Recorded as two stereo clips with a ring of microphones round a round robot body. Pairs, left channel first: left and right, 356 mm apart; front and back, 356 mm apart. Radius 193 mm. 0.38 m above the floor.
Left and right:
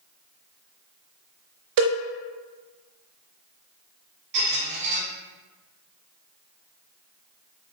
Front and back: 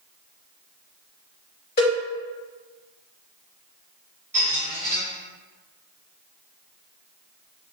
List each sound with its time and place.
1.8 s a cowbell: 65° right, 0.7 m
4.3 s a squeak: 95° right, 2.0 m